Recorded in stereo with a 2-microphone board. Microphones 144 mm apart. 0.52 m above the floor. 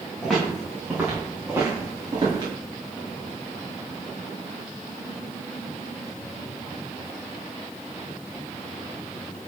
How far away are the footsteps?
About 3 m.